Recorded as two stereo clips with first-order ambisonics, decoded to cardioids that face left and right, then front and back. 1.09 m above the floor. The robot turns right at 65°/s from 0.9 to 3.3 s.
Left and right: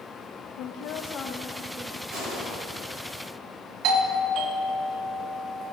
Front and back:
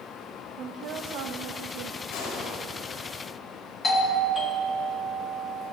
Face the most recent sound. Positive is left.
turn(degrees=-70)